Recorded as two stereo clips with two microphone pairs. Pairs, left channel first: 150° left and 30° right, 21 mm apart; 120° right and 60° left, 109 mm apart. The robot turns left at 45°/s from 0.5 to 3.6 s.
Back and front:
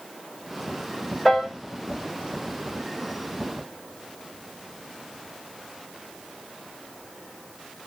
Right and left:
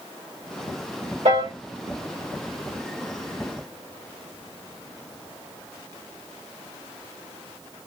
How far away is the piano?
About 1.4 m.